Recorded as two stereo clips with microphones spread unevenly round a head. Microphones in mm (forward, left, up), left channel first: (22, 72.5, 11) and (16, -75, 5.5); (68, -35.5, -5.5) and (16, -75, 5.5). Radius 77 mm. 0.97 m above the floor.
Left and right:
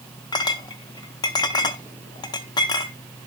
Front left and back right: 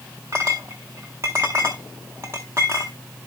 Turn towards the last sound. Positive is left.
turn(degrees=150)